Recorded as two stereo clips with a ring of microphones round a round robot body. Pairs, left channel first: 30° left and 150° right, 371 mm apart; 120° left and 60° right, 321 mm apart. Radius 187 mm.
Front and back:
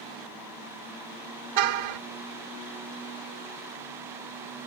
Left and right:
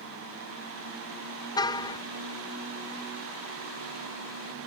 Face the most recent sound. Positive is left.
turn(degrees=-160)